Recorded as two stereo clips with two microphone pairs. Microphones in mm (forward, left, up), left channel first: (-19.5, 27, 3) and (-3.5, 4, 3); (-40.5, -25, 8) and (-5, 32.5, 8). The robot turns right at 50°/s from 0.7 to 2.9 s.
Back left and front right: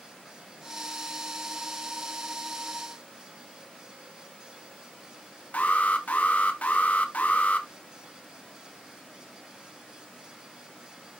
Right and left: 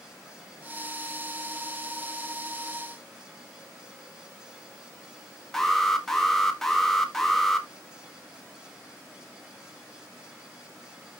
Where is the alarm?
155° left, 1.3 m.